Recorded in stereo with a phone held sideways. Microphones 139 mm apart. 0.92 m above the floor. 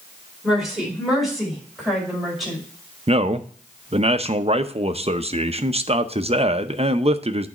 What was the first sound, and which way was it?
A woman speaking, centre (ahead or behind).